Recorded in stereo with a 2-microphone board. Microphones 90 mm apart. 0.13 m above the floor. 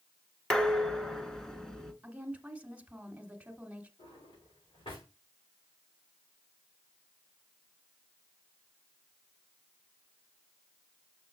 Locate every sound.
0.5 s dishes clattering: 10° left (ahead or behind), 1.0 m
2.0 s a woman speaking: 15° right (ahead or behind), 1.4 m
4.0 s a drawer: 75° left (ahead or behind), 6 m